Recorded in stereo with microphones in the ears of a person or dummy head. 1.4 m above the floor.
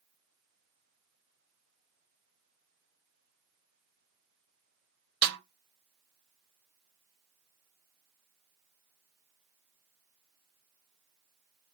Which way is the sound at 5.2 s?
55° right (ahead or behind).